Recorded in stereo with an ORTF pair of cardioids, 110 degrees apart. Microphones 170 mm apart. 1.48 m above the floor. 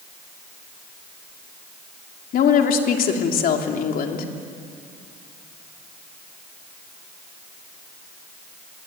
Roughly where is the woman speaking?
Ahead left.